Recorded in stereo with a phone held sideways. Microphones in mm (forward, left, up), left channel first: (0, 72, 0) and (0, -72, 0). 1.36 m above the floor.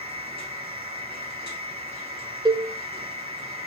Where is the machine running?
40° right (ahead or behind), 3.5 m.